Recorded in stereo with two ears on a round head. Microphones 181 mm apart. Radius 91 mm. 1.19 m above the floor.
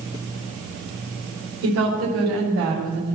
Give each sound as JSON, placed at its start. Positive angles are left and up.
{"t": 1.6, "sound": "a woman speaking", "side_deg": -80, "distance_m": 5.0}